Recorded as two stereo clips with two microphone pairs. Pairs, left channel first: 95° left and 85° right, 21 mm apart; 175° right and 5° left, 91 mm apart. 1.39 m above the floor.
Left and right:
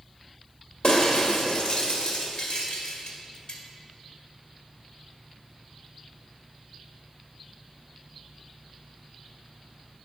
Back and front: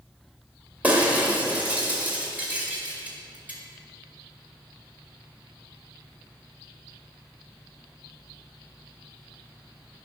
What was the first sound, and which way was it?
Breaking glass, 75° left.